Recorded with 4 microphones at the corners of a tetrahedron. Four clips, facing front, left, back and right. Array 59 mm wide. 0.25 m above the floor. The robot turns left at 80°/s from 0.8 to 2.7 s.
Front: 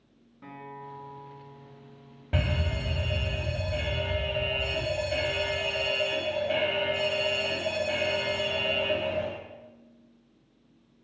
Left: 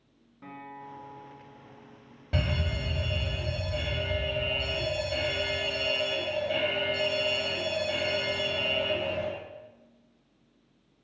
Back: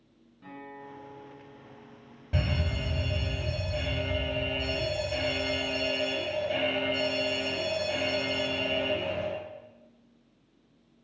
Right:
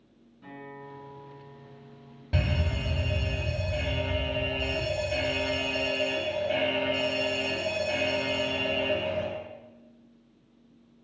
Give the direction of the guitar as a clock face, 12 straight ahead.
10 o'clock.